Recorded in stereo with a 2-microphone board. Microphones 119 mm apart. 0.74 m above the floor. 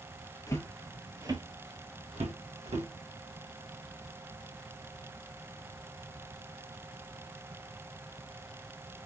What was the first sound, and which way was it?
Footsteps, 30° left (ahead or behind).